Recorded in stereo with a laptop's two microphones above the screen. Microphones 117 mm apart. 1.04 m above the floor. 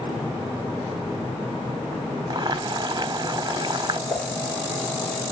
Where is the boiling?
40° right (ahead or behind), 0.8 m.